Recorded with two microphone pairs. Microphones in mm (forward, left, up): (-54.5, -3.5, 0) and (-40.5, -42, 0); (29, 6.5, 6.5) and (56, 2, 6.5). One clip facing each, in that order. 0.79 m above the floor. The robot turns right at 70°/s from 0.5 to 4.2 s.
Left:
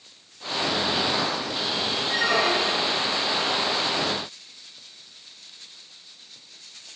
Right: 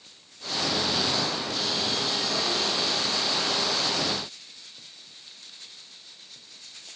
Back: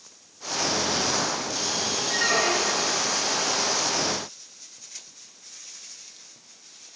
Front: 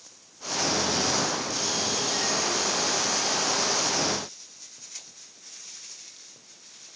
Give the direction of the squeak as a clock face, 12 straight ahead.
8 o'clock.